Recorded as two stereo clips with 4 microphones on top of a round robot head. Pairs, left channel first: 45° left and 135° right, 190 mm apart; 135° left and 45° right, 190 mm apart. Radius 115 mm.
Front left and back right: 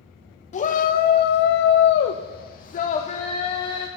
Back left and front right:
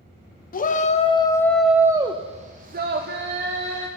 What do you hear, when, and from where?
0.5 s a shout: 95° left, 1.0 m; by 3.9 s 20° right, 1.6 m